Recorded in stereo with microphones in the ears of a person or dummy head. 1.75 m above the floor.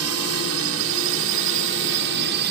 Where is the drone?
80° right; by 2.5 s 60° right (ahead or behind).